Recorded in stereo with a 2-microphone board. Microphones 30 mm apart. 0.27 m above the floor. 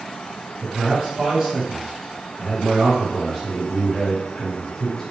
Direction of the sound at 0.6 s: 30° right (ahead or behind).